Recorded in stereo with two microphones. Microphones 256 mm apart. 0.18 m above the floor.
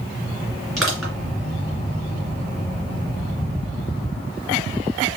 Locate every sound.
0.8 s crushing: centre (ahead or behind), 2.5 m